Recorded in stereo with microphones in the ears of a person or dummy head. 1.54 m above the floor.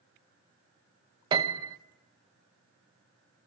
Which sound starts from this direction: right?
A piano, at 1.3 s.